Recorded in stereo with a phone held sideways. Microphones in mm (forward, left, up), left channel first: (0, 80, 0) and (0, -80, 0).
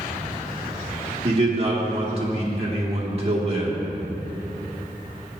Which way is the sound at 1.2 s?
40° right (ahead or behind).